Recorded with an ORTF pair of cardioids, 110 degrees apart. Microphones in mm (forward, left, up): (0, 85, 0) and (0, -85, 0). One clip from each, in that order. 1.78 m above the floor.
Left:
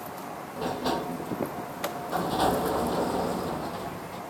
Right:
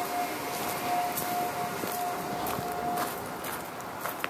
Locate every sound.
0.6 s a sliding door: 65° left